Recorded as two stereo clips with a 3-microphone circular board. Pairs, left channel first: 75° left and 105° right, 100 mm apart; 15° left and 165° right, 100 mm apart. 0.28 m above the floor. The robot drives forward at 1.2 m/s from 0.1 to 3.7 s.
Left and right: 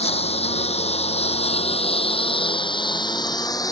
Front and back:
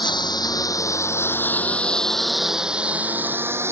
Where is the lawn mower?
60° left; by 3.7 s 130° left.